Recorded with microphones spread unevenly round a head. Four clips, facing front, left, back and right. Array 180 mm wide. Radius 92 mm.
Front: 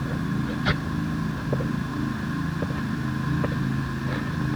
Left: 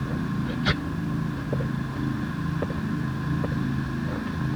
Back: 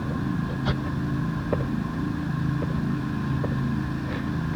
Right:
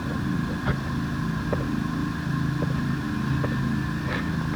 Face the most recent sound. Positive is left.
No sound to turn to.